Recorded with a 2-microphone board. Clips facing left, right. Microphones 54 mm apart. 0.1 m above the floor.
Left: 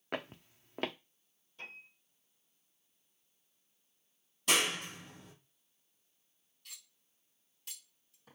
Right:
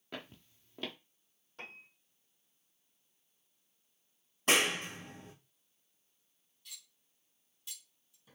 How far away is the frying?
No frying in this recording.